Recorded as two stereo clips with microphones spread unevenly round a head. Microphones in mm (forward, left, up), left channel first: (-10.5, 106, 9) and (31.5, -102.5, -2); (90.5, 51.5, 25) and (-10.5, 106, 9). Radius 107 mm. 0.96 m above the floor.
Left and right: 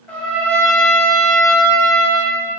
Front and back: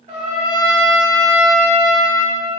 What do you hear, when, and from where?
0.1 s a trumpet: 175° left, 0.8 m